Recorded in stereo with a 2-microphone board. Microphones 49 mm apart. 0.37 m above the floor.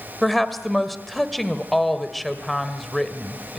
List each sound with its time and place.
0.2 s a woman speaking: centre (ahead or behind), 1.8 m